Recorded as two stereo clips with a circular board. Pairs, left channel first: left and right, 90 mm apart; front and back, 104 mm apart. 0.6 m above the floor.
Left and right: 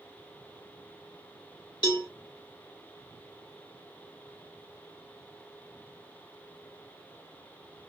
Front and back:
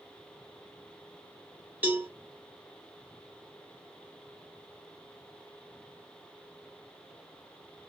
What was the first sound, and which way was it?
A cowbell, 110° left.